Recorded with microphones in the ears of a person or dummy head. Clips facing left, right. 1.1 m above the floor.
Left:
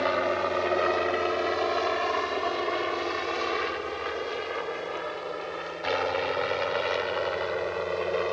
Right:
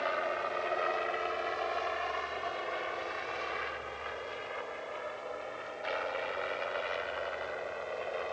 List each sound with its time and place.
0.0 s a helicopter: 60° left (ahead or behind); by 8.3 s 75° left (ahead or behind)